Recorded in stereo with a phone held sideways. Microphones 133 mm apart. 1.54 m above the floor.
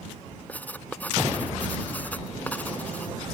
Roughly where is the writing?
Centre.